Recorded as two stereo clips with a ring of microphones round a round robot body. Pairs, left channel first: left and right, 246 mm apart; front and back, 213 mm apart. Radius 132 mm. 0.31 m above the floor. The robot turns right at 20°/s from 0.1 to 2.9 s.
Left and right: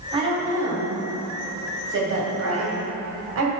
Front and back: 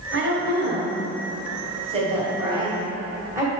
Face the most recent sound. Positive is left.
turn(degrees=-100)